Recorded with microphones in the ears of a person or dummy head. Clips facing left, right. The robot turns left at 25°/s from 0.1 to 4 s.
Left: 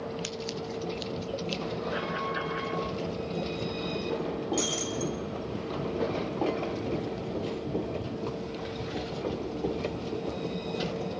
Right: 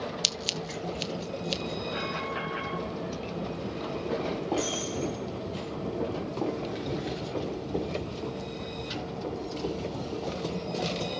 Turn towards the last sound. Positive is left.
turn(degrees=50)  # may be behind; listen again after turning